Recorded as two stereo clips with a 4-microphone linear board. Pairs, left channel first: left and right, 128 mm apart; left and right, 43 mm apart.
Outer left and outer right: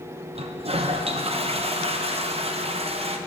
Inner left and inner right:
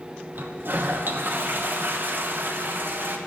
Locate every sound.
0.3 s a toilet flushing: 50° right (ahead or behind), 0.7 m